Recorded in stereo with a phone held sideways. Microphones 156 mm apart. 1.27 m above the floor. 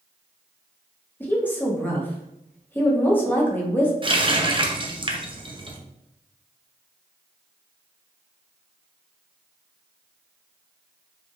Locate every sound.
1.2 s a woman speaking: 10° left (ahead or behind), 1.0 m
4.0 s a running tap: 30° right (ahead or behind), 0.6 m